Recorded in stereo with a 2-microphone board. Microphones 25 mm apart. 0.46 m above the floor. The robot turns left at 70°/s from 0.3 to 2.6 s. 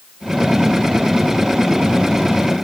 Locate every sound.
Only background noise.